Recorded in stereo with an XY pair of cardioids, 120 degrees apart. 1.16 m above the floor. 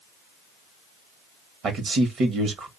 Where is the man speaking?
55° right, 0.9 m.